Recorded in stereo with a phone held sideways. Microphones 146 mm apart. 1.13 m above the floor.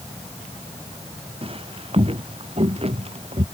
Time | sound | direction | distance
1.4 | footsteps | 40° right (ahead or behind) | ?